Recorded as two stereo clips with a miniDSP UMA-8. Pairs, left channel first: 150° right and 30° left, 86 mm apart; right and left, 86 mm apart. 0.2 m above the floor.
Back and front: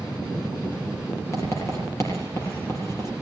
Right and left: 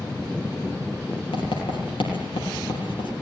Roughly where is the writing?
Right.